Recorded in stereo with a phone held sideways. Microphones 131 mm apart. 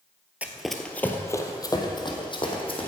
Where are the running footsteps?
10° right (ahead or behind), 1.0 m; by 2.9 s 45° left (ahead or behind), 2.5 m.